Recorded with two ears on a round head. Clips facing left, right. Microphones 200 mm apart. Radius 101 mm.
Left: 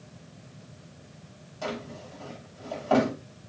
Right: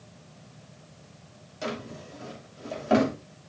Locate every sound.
1.6 s a drawer: 25° right (ahead or behind), 2.5 m